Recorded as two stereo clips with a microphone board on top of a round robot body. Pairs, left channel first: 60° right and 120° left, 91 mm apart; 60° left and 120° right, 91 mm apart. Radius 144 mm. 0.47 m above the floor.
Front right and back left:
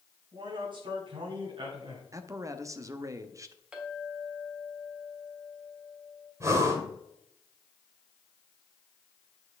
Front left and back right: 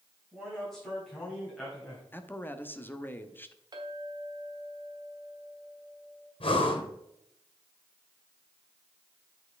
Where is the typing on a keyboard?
I don't hear typing on a keyboard.